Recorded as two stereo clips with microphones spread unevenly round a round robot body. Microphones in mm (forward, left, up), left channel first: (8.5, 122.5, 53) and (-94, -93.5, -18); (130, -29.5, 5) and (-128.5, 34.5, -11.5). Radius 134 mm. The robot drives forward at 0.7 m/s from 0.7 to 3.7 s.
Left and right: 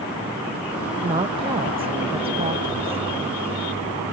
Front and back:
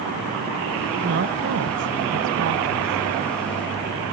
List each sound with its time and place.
1.0 s a woman speaking: 165° right; by 3.0 s 175° right